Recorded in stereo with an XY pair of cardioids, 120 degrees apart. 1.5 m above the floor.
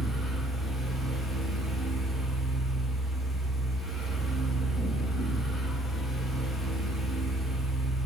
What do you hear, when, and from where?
0.0 s a fan: 30° left, 1.1 m